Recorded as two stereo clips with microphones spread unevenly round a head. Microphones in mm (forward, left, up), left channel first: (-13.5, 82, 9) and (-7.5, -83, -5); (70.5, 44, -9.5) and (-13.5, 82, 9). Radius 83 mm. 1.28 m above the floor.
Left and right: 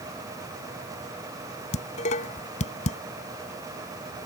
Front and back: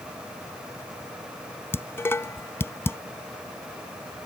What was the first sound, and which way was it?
Dishes clattering, 40° left.